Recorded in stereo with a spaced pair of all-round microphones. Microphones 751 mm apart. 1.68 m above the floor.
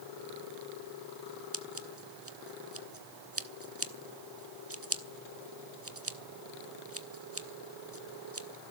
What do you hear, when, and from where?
1.5 s scissors: 20° right (ahead or behind), 1.3 m